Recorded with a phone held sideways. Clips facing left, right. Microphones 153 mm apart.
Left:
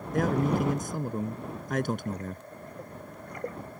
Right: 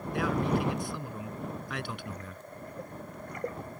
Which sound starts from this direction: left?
A man speaking, at 0.1 s.